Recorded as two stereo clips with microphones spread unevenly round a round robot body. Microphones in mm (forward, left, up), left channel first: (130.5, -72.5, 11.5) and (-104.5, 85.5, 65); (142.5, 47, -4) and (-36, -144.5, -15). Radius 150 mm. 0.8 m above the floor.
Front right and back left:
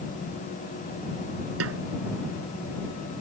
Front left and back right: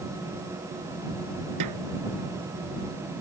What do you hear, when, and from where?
1.6 s a snare drum: 170° right